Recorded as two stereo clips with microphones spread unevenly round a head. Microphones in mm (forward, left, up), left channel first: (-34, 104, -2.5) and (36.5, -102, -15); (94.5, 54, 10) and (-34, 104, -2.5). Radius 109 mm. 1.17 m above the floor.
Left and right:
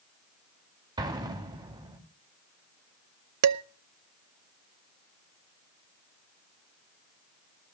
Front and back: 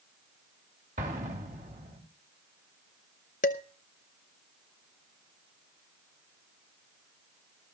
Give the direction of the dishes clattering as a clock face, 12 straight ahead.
2 o'clock.